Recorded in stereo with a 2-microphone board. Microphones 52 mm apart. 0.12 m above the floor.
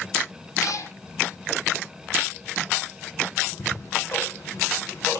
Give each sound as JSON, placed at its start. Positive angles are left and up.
{"t": 0.6, "sound": "a cat meowing", "side_deg": 75, "distance_m": 1.9}
{"t": 3.5, "sound": "ticking", "side_deg": 55, "distance_m": 4.0}